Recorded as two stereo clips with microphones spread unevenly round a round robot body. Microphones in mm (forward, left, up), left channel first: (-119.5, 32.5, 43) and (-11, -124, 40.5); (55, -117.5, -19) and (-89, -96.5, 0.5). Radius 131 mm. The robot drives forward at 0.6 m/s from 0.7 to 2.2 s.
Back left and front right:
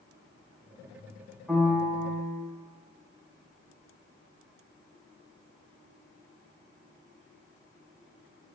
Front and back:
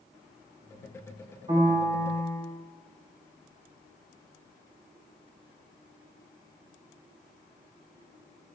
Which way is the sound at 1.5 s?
145° right.